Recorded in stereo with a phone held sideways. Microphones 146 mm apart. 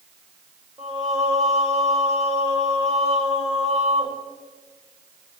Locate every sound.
0.8 s singing: 50° right (ahead or behind), 3 m